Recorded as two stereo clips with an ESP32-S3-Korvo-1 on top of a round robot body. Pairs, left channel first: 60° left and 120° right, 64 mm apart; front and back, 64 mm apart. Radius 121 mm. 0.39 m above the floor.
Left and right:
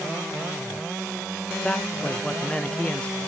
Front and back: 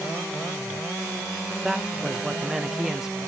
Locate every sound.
1.6 s a man speaking: 110° left, 0.8 m